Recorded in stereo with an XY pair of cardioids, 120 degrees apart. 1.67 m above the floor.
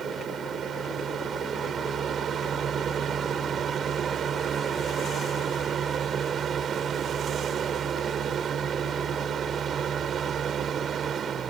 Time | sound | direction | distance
0.0 | a fan | 45° right | ?